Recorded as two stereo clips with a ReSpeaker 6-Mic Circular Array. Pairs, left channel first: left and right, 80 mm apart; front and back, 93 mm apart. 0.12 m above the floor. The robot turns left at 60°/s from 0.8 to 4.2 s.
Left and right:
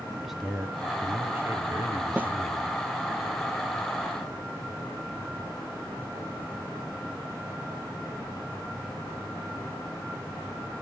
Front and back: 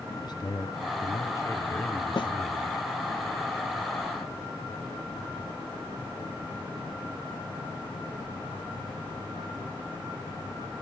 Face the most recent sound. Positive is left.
turn(degrees=-145)